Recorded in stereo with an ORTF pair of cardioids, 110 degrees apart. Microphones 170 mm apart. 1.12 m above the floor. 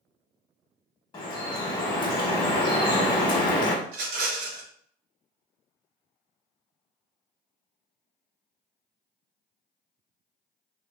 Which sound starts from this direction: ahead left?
Dripping, at 1.1 s.